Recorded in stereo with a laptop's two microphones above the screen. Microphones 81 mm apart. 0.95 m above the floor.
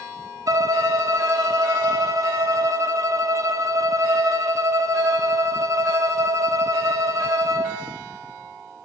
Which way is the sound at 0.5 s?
45° right (ahead or behind).